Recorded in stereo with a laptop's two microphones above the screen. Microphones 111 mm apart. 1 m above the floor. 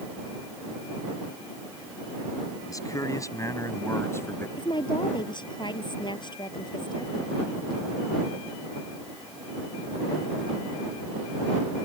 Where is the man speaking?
30° left (ahead or behind); by 4.5 s 20° left (ahead or behind).